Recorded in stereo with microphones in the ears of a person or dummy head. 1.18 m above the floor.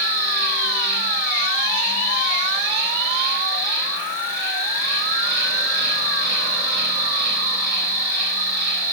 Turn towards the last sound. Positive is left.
turn(degrees=-60)  # may be behind; listen again after turning